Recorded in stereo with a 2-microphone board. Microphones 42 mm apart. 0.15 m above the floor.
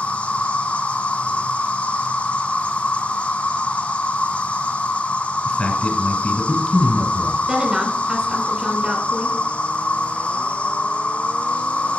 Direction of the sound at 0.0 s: 30° left (ahead or behind).